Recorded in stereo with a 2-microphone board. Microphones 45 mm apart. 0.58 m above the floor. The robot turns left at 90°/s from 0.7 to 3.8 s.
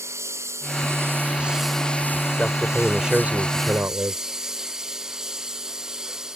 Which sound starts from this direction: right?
A lawn mower, at 0.0 s.